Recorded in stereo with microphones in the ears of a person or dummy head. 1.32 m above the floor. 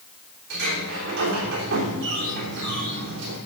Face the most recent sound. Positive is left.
turn(degrees=-55)  # may be behind; listen again after turning